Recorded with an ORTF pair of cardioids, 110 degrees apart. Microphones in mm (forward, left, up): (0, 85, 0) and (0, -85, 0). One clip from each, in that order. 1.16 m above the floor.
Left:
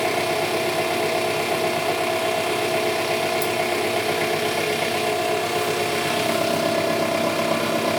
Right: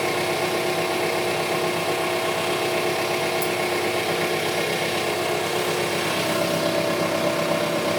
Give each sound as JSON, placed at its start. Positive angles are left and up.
{"t": 0.0, "sound": "an engine running", "azimuth_deg": 30, "distance_m": 3.0}